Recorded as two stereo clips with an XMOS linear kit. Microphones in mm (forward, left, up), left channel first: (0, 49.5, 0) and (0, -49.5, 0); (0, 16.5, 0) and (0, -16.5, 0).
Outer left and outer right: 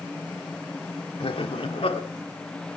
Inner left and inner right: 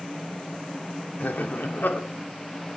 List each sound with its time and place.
1.2 s laughter: 65° left (ahead or behind), 2 m